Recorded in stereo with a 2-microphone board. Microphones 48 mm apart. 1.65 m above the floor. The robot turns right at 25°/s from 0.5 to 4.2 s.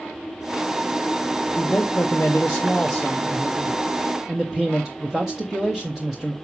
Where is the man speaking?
130° left, 0.8 m; by 6.3 s 165° right, 0.8 m.